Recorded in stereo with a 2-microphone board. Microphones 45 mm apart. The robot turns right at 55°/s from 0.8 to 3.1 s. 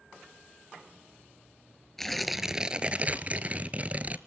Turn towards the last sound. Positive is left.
turn(degrees=-130)